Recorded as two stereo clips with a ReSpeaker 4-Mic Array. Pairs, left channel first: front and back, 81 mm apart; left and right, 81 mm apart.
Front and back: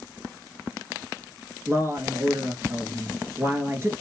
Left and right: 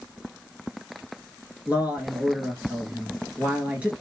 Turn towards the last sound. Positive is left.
turn(degrees=-155)